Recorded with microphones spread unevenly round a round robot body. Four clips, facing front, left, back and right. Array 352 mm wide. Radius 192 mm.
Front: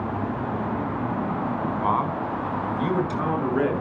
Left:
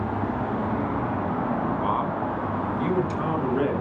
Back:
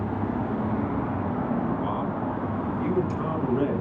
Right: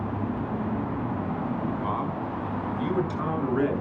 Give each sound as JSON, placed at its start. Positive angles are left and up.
{"t": 1.8, "sound": "a man speaking", "azimuth_deg": 20, "distance_m": 4.5}